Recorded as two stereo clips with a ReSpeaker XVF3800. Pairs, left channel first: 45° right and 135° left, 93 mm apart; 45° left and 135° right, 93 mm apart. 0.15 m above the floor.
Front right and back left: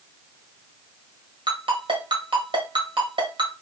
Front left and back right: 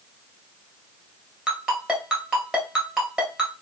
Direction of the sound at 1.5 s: 140° left.